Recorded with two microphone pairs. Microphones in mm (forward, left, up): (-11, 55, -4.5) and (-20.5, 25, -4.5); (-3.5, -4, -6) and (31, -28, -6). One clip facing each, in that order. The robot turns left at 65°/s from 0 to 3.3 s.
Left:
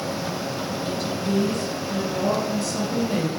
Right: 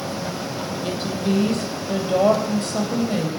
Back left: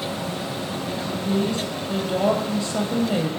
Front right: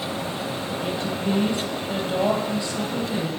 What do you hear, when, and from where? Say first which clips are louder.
0.8 s a woman speaking: right 4 dB, front right 2 dB; 50° right, 3.5 m; by 3.3 s 145° left, 3.5 m